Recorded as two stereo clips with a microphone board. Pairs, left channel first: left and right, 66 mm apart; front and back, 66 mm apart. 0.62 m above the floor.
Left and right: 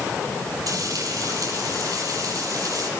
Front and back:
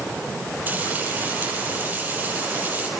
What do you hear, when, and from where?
0.7 s frying: 115° right, 9.5 m